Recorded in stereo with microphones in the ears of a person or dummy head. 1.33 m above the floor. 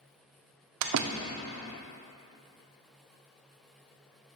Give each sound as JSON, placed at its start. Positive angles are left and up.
{"t": 0.8, "sound": "a door slam", "side_deg": -75, "distance_m": 0.6}